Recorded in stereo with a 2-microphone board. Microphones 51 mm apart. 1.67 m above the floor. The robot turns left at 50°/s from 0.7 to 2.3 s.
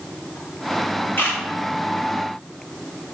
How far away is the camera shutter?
About 1.8 m.